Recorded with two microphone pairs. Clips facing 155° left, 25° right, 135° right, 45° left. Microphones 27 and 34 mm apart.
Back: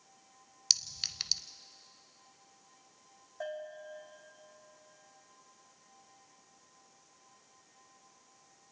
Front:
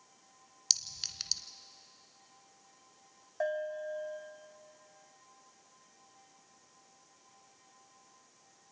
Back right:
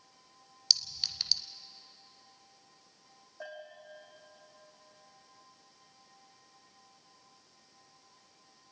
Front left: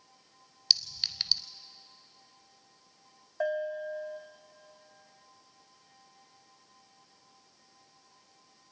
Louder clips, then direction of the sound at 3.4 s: Front 7 dB, front left 15 dB; 10° left.